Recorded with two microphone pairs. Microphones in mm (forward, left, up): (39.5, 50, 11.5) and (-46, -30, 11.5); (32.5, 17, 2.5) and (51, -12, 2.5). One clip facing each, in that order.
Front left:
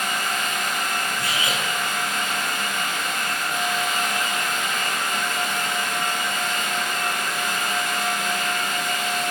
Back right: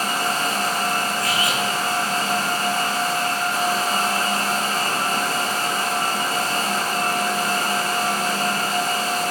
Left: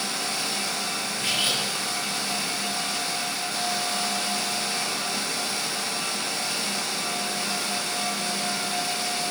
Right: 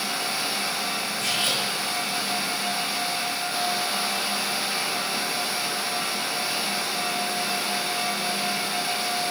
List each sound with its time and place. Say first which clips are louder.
1.2 s cutlery clinking: back right 4 dB, left 1 dB; 65° left, 6 m